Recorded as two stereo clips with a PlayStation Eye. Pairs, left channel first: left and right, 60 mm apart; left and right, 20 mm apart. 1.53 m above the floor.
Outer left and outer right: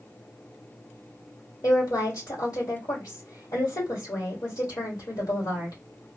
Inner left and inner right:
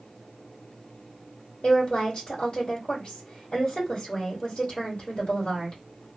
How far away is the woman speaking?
About 1.2 m.